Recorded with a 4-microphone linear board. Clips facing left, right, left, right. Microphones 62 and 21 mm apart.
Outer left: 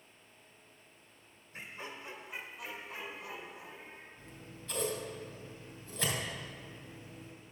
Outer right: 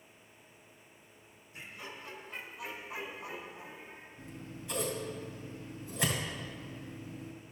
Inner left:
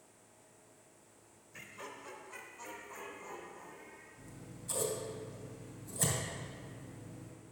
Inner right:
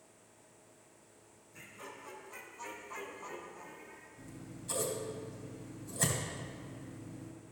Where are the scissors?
15° right (ahead or behind), 2 m.